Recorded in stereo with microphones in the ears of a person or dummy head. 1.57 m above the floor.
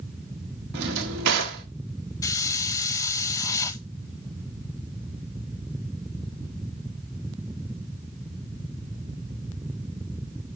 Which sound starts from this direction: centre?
A hiss, at 2.2 s.